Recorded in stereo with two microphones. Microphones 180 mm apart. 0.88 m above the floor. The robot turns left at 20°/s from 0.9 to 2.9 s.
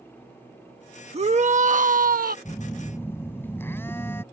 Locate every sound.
1.1 s a shout: 35° right (ahead or behind); by 2.4 s 55° right (ahead or behind)
2.5 s a phone buzzing: 20° left (ahead or behind); by 4.2 s 15° left (ahead or behind)